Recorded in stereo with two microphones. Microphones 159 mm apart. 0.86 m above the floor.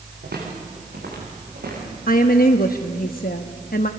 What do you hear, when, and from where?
0.2 s footsteps: 80° right, 9 m; by 2.0 s 85° right, 10 m
2.1 s a woman speaking: 65° left (ahead or behind), 1.0 m